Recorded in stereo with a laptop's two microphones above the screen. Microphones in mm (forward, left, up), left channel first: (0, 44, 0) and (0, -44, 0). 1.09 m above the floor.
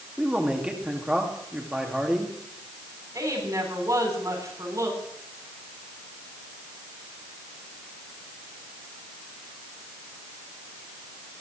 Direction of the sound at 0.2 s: 10° right (ahead or behind).